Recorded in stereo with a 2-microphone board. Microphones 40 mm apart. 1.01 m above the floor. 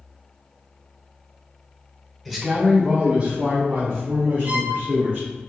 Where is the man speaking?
Centre (ahead or behind), 0.7 m; by 5.3 s 50° right (ahead or behind), 3 m.